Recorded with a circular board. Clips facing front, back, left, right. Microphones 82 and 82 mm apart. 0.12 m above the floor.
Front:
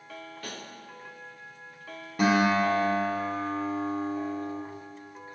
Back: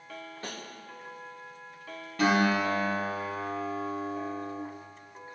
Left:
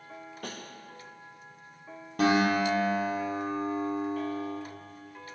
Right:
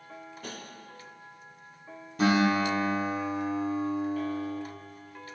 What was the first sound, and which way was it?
Tapping, 115° left.